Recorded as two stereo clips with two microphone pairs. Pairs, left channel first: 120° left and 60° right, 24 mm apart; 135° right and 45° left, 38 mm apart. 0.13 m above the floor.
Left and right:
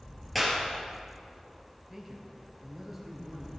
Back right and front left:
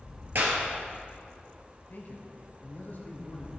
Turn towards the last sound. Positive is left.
turn(degrees=-135)